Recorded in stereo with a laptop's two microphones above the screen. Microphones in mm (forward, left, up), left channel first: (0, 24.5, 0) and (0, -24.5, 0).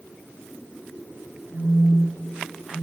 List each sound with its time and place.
1.5 s a phone buzzing: 50° left (ahead or behind), 2.5 m